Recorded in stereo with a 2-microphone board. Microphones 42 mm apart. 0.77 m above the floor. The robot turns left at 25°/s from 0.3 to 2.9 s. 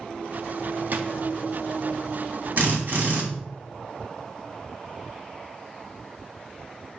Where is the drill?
50° right (ahead or behind), 1.2 m.